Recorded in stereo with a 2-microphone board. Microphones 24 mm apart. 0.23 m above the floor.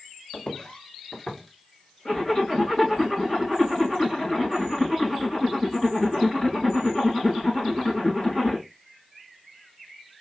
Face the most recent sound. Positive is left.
turn(degrees=45)  # may be behind; listen again after turning